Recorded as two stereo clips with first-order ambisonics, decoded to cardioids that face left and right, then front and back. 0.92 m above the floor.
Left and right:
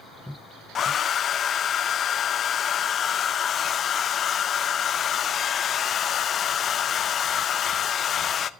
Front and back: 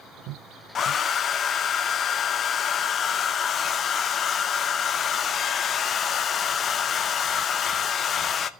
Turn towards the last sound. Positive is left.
turn(degrees=45)